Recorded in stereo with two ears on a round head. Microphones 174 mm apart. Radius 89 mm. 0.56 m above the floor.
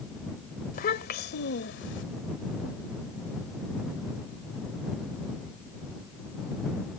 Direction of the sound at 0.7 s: 50° left (ahead or behind).